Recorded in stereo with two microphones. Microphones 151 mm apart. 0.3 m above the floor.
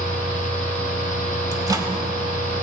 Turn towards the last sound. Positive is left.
turn(degrees=-25)  # may be behind; listen again after turning